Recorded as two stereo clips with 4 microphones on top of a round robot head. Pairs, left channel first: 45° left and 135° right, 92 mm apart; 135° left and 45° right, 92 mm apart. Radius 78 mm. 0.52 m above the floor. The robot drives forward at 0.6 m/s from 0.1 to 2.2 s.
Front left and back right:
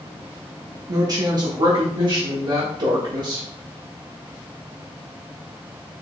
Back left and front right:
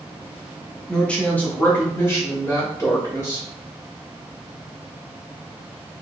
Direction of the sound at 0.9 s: 145° right.